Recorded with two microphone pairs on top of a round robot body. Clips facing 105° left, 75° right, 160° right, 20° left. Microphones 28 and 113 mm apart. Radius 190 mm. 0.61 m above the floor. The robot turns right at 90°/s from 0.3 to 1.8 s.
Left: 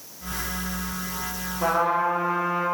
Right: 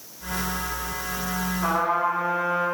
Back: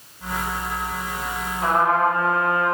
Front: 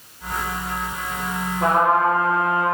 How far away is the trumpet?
About 5 m.